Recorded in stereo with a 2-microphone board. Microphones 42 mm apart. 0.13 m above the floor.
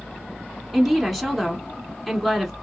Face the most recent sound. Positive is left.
turn(degrees=0)  # may be behind; listen again after turning